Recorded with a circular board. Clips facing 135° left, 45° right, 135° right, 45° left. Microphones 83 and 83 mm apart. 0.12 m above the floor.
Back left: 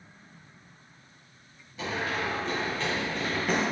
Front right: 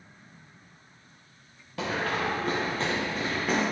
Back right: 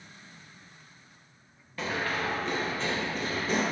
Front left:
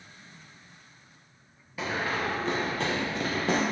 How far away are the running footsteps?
About 0.8 m.